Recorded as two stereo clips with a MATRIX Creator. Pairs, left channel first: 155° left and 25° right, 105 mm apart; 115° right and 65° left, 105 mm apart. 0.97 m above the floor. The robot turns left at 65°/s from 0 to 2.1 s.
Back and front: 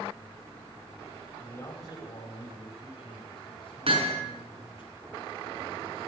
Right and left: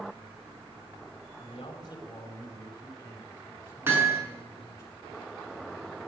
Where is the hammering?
Straight ahead, 5.5 m.